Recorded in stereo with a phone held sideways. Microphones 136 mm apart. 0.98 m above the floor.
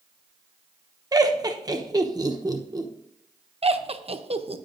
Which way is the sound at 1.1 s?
30° right (ahead or behind).